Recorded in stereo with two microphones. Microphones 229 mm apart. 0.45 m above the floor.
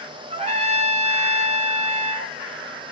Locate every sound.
0.3 s a trumpet: 25° right (ahead or behind), 0.7 m